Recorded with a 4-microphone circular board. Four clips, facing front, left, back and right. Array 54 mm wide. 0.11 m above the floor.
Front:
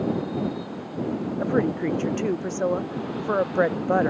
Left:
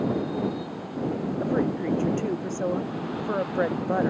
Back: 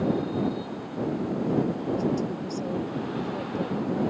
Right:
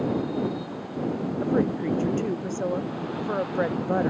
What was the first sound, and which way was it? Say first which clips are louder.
A woman speaking: right 2 dB, front 5 dB; straight ahead.